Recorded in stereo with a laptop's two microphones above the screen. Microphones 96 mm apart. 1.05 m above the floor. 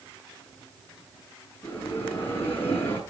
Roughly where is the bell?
Left.